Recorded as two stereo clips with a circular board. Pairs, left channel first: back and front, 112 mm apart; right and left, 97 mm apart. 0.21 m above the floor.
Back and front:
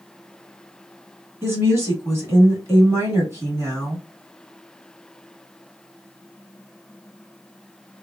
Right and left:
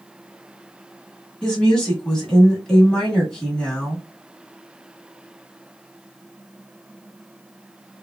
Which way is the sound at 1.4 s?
20° right.